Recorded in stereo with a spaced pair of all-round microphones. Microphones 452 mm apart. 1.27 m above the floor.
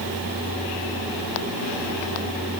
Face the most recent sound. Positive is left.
No sound to turn to.